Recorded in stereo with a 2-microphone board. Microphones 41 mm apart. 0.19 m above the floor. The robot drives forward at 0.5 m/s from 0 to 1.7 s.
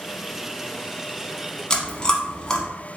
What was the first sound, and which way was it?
Chewing, 15° left (ahead or behind).